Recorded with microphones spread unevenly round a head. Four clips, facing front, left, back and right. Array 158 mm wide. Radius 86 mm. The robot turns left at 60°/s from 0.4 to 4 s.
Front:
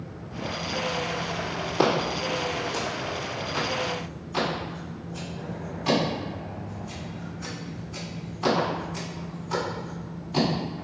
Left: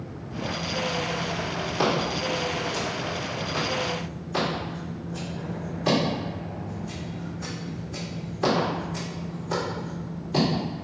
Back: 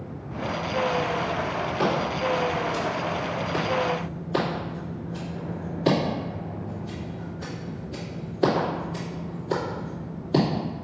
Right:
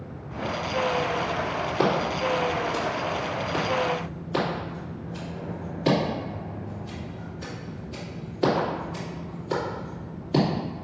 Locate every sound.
1.8 s scissors: 25° right, 3 m; by 10.4 s 160° right, 3 m